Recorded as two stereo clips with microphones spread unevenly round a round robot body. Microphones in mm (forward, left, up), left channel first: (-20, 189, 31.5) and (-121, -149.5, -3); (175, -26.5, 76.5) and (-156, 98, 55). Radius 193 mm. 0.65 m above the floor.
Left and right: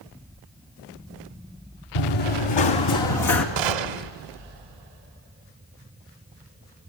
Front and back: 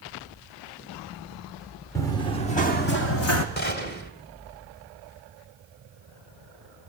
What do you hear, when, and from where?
1.9 s running footsteps: 60° left, 3.5 m; by 3.5 s 20° left, 2.5 m
3.6 s a gunshot: 85° right, 2.0 m